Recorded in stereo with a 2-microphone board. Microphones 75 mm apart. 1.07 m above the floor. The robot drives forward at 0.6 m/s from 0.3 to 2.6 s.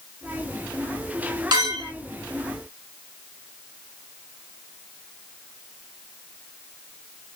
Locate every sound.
1.5 s a clink: 70° right (ahead or behind), 2.5 m; by 1.9 s 75° right (ahead or behind), 2.5 m